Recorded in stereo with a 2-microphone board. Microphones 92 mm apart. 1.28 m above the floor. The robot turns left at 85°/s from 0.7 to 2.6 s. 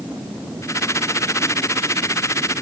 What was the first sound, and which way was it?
Only background noise.